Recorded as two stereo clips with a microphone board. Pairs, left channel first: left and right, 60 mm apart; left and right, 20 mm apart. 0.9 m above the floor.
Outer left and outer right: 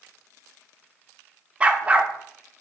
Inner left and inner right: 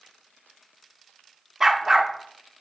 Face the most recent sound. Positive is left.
turn(degrees=-20)  # may be behind; listen again after turning